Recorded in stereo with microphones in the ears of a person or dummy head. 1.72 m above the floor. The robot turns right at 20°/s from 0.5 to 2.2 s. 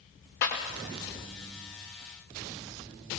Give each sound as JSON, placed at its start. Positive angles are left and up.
{"t": 0.4, "sound": "a clap", "side_deg": 55, "distance_m": 5.5}